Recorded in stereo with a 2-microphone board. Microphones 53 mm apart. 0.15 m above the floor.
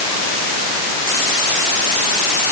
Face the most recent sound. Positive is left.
No sound to turn to.